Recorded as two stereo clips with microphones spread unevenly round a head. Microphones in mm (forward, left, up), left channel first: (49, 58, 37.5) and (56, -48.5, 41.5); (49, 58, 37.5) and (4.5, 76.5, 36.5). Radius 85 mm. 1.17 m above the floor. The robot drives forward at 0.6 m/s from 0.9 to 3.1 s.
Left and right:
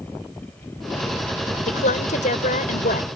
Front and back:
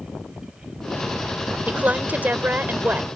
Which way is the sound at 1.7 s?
100° left.